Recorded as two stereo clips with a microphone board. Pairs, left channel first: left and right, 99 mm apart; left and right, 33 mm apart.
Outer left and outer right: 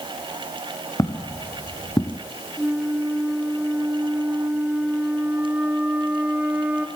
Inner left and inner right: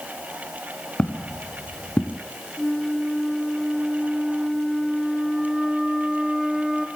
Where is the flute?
15° right (ahead or behind), 2 m.